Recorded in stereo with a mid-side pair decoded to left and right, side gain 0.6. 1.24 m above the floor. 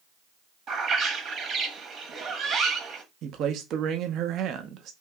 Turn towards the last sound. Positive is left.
turn(degrees=-55)